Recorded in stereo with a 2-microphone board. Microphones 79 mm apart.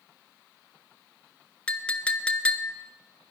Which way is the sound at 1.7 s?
15° left (ahead or behind).